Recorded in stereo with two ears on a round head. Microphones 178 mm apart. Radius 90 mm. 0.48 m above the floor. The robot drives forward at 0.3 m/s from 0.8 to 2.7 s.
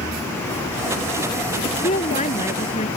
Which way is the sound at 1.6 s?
35° left (ahead or behind).